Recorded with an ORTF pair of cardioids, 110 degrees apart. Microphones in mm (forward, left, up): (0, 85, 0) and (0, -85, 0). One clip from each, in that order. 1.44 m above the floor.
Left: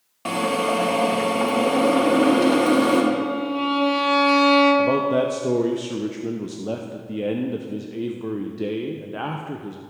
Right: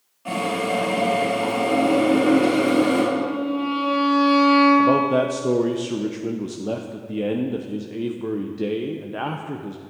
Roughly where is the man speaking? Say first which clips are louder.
Right 2 dB; ahead.